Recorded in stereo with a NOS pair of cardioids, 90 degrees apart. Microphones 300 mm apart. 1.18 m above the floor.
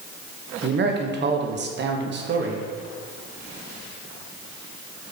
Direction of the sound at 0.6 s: 40° right.